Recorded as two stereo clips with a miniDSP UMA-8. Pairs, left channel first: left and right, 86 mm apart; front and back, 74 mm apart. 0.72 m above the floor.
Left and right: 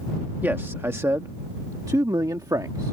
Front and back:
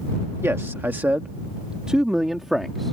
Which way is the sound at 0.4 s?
145° right.